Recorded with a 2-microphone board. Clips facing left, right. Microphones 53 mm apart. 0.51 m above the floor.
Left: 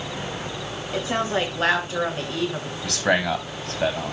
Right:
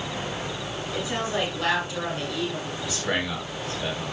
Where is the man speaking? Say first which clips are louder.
Left 7 dB; 60° left (ahead or behind), 4 m.